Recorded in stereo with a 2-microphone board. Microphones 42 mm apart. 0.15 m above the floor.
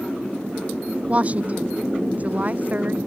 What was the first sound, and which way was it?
A woman speaking, 35° right (ahead or behind).